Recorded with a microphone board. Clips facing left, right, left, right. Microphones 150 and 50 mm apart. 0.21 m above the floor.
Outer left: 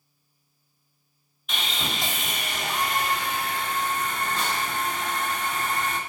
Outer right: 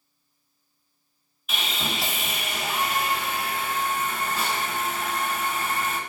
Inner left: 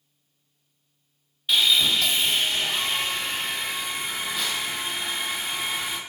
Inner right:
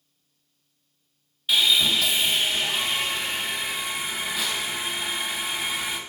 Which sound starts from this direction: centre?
Sawing, at 1.5 s.